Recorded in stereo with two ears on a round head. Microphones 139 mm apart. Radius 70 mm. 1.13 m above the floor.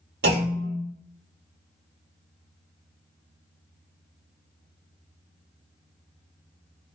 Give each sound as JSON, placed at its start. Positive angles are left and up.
{"t": 0.2, "sound": "a clunk", "side_deg": -75, "distance_m": 1.3}